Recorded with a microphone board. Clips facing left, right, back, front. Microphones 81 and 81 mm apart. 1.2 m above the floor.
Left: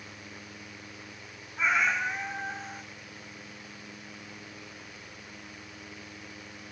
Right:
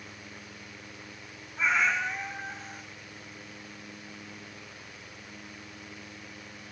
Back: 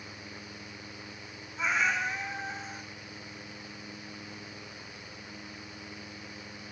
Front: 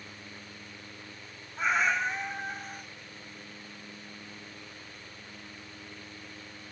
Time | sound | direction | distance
1.6 | a cat meowing | 10° left | 1.1 m